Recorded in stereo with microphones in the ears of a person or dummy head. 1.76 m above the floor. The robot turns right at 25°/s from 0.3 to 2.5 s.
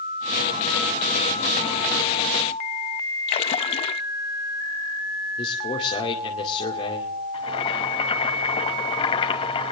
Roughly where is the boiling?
Left.